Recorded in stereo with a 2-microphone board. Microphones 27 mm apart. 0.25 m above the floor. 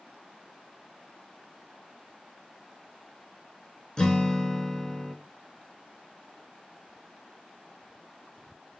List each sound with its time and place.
4.0 s a guitar: 30° left (ahead or behind), 0.5 m